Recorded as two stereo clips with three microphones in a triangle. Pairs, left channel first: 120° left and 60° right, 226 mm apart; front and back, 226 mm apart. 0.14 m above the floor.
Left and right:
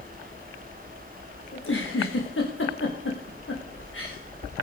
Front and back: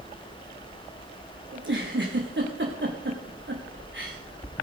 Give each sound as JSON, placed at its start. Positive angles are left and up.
{"t": 1.5, "sound": "a giggle", "azimuth_deg": 145, "distance_m": 4.0}